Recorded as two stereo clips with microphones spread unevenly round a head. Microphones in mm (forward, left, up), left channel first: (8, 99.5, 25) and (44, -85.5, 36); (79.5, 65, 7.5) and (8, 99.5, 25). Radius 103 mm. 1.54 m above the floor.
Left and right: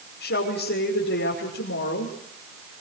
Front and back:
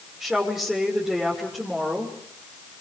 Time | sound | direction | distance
0.2 | a woman speaking | 75° left | 6 m